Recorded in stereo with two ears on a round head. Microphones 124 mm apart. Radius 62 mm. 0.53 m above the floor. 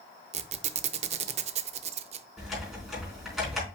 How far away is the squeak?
About 0.5 m.